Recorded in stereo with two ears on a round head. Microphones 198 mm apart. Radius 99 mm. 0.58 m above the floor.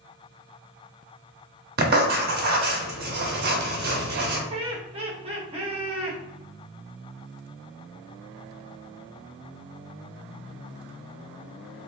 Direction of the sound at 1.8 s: 45° right (ahead or behind).